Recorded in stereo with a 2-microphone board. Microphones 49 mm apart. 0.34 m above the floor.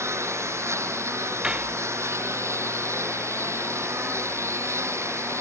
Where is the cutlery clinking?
20° right (ahead or behind).